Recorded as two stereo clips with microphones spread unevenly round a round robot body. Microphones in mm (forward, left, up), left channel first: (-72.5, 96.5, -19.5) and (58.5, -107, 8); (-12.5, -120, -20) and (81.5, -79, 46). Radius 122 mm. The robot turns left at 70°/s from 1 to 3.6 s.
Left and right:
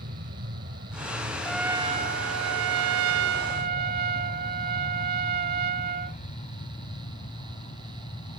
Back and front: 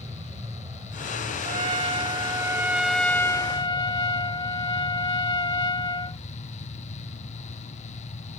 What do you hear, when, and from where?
0.0 s an aircraft: 5° right; by 8.4 s 170° right
1.4 s a trumpet: 40° left; by 6.2 s 110° right